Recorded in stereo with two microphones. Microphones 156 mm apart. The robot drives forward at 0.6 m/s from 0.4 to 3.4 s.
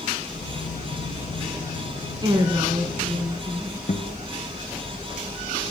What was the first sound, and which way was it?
A woman speaking, 30° right (ahead or behind).